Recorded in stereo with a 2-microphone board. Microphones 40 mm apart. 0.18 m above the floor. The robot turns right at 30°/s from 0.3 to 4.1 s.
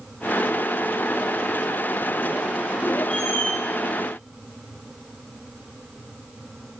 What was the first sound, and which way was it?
A squeak, 40° left (ahead or behind).